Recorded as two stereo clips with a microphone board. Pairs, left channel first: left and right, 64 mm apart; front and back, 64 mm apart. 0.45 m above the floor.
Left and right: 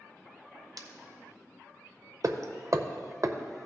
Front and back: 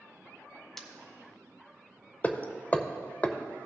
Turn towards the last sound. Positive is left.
turn(degrees=-65)